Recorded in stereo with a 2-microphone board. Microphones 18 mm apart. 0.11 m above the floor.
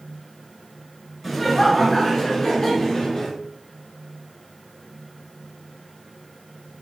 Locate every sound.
1.2 s laughter: centre (ahead or behind), 1.4 m; by 3.3 s 25° left (ahead or behind), 1.5 m